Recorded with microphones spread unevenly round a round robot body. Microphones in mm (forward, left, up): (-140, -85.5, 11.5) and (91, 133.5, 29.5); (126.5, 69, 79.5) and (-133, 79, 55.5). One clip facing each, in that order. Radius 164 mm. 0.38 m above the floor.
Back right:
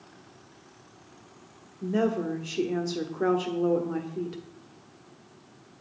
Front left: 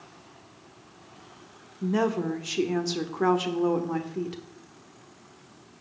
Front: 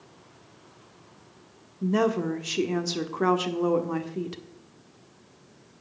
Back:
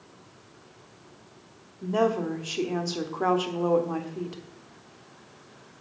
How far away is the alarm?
I don't hear an alarm.